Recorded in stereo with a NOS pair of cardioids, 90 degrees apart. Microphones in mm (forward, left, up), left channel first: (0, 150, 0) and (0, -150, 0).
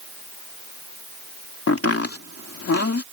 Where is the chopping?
50° left.